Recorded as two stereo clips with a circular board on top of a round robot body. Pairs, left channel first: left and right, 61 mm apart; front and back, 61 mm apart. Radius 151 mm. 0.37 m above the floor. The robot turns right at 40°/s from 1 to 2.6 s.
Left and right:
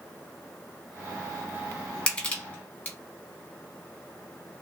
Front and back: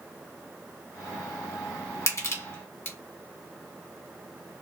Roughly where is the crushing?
Ahead.